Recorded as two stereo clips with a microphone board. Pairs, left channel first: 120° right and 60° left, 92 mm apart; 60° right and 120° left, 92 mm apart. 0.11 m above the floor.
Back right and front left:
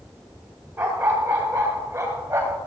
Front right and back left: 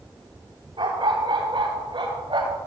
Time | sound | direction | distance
0.8 | a dog barking | 130° left | 6.5 m